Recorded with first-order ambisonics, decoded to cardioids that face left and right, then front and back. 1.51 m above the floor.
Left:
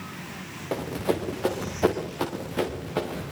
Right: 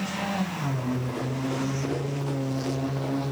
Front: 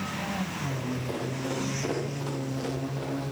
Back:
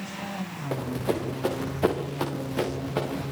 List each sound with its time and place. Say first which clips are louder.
0.7 s running footsteps: left 4 dB, back 5 dB; 125° left, 7.5 m; by 3.3 s 140° left, 8.5 m